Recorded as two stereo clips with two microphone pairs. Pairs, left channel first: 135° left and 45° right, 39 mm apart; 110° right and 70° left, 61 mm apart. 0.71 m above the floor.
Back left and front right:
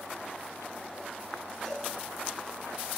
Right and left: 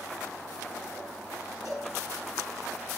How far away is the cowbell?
About 5.5 m.